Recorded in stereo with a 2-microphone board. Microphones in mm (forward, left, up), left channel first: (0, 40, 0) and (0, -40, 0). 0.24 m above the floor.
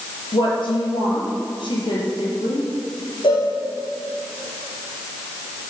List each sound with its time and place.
0.3 s a woman speaking: 75° left (ahead or behind), 5.5 m
3.2 s a cowbell: 85° left, 7.5 m